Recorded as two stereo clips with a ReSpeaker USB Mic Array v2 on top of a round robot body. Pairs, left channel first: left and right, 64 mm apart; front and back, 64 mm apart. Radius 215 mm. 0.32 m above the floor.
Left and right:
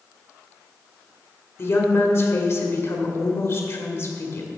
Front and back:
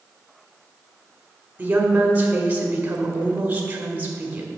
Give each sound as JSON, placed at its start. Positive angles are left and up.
{"t": 1.6, "sound": "a woman speaking", "azimuth_deg": 120, "distance_m": 1.7}